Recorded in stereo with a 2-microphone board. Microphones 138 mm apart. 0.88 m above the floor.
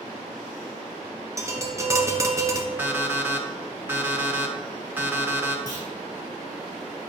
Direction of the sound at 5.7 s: 30° right (ahead or behind).